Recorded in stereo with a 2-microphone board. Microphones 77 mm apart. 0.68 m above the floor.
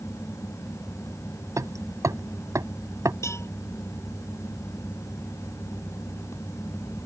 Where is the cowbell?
40° left (ahead or behind).